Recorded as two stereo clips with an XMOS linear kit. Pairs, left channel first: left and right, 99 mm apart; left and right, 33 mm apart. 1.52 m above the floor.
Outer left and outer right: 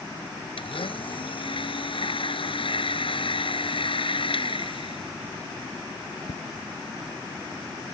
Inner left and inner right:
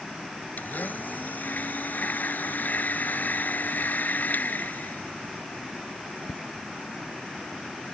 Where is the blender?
65° left (ahead or behind).